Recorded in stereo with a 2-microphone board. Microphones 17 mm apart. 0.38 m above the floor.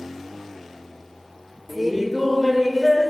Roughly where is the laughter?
Right.